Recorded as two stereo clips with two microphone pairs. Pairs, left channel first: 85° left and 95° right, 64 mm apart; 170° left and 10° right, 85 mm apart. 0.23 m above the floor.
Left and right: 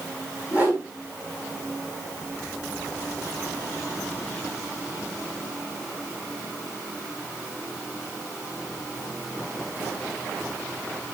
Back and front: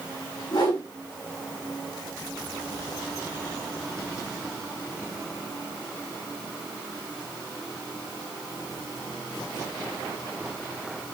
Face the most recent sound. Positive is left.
turn(degrees=-160)